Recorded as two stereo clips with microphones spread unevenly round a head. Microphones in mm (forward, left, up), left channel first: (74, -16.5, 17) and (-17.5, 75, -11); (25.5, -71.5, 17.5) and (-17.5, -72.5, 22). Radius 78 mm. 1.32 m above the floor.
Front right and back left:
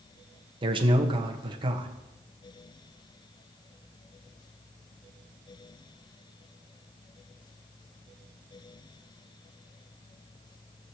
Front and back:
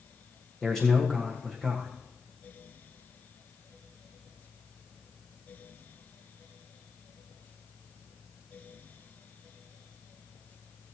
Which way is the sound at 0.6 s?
90° left.